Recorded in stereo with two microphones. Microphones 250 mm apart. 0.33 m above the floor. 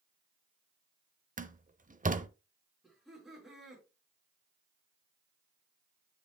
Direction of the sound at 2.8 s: Centre (ahead or behind).